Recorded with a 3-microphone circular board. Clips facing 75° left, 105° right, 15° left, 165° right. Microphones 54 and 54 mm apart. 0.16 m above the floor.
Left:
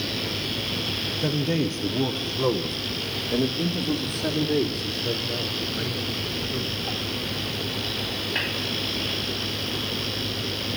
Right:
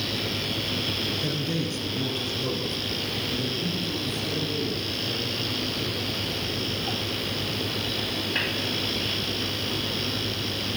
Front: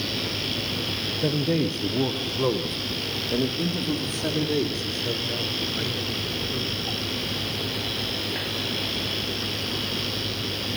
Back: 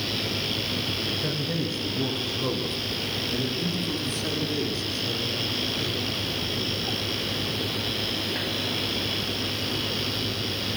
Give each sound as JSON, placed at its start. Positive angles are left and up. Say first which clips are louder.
{"t": 1.2, "sound": "a man speaking", "louder": "left 4 dB, front 10 dB", "azimuth_deg": 25, "distance_m": 3.5}